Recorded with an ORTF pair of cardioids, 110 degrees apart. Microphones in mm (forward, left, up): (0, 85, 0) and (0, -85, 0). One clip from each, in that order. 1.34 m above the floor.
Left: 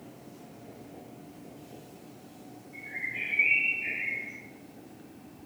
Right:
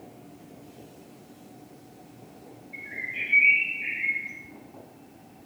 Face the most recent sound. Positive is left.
turn(degrees=-40)